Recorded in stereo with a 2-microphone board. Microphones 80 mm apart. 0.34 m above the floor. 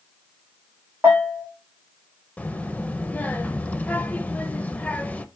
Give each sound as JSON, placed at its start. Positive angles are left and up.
{"t": 1.0, "sound": "a bell", "side_deg": -30, "distance_m": 3.5}
{"t": 2.4, "sound": "a child speaking", "side_deg": 20, "distance_m": 0.6}